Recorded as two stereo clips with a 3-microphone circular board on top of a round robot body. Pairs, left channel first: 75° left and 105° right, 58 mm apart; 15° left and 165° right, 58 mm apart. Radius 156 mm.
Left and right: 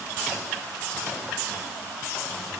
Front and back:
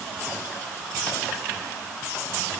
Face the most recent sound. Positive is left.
No sound to turn to.